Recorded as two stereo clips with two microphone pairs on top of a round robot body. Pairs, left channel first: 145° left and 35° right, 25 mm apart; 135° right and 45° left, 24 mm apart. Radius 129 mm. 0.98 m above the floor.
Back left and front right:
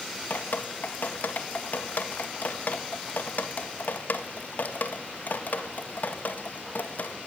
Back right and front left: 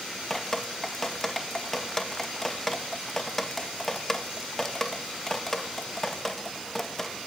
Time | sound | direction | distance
0.3 | dripping | 145° left | 1.8 m